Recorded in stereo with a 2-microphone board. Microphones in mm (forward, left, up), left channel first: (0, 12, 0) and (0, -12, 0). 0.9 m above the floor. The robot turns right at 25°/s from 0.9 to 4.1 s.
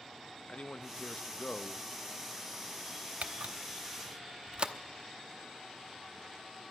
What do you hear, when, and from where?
0.5 s a man speaking: 55° left (ahead or behind), 0.6 m; by 1.9 s 40° left (ahead or behind), 0.6 m
3.2 s a camera shutter: 60° right (ahead or behind), 0.8 m; by 4.7 s 35° right (ahead or behind), 0.8 m